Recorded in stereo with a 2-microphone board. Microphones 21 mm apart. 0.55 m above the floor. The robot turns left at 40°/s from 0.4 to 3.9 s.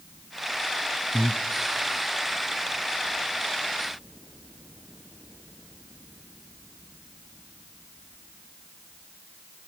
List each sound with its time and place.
1.1 s breathing: 15° left (ahead or behind), 1.0 m; by 1.4 s 25° left (ahead or behind), 1.0 m